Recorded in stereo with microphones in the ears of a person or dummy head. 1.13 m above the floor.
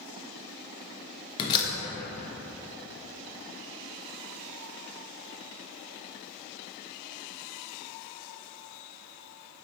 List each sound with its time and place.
1.4 s a door slam: 25° left (ahead or behind), 0.5 m